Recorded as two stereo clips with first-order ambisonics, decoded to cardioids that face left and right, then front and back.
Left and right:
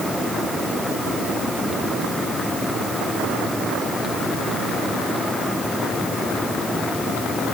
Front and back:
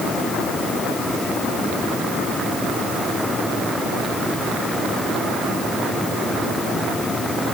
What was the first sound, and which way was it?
Only background noise.